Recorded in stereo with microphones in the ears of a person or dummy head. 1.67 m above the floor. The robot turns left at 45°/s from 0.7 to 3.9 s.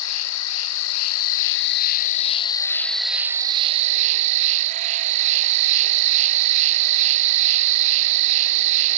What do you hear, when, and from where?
0.0 s an insect: 105° left, 0.8 m; by 9.0 s 40° right, 0.8 m